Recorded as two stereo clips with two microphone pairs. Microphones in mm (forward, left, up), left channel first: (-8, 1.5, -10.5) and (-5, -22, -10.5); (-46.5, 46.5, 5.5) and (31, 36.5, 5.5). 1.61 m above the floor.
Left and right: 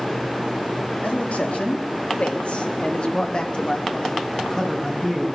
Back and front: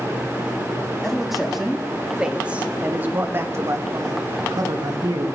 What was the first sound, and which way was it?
A man speaking, 85° left.